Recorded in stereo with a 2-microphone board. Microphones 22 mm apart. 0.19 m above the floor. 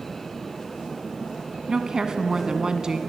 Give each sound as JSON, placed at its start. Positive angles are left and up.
{"t": 1.7, "sound": "a woman speaking", "side_deg": -30, "distance_m": 1.7}